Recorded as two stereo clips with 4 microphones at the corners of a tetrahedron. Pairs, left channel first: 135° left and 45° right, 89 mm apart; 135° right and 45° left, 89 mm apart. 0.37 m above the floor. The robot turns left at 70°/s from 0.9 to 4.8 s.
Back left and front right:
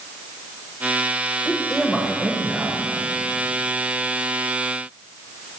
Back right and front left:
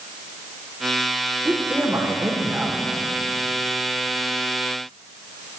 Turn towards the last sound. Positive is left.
turn(degrees=-165)